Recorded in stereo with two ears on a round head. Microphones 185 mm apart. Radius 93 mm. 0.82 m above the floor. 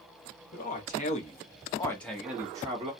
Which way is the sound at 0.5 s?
45° left (ahead or behind).